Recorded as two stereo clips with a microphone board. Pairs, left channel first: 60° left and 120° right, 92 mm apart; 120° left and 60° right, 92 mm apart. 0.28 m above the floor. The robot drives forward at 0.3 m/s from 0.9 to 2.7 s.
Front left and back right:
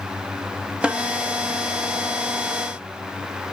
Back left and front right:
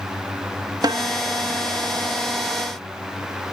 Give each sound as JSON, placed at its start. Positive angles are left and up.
{"t": 0.8, "sound": "a snare drum", "azimuth_deg": -45, "distance_m": 0.8}